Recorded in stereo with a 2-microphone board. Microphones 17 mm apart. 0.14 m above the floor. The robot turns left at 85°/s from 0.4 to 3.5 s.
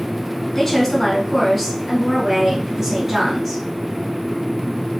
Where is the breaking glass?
I don't hear breaking glass.